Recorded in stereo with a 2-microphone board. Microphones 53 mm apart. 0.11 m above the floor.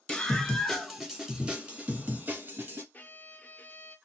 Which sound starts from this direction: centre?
A scream, at 0.1 s.